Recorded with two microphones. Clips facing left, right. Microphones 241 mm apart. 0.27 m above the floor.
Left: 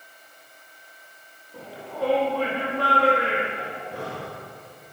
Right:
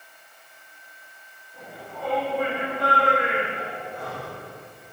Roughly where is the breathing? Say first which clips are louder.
Left 1 dB; left.